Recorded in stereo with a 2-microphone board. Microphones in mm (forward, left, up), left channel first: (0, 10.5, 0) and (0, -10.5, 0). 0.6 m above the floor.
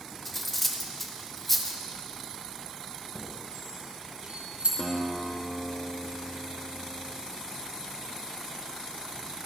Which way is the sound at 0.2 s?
5° left (ahead or behind).